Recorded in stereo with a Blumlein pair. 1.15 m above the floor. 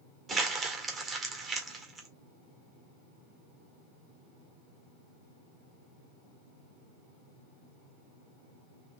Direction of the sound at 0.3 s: 10° right.